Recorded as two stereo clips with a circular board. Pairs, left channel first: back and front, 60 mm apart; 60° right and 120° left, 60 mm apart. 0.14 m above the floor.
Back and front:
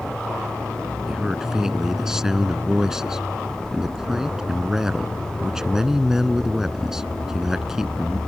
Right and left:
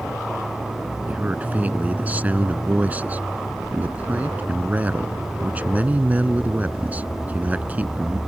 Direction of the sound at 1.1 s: 75° left.